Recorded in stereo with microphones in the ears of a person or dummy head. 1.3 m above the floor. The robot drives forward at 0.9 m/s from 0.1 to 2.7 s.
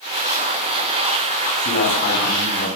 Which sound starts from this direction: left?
A man speaking, at 1.6 s.